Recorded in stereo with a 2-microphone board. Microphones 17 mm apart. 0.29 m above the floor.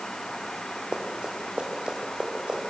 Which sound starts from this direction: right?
Running footsteps, at 0.9 s.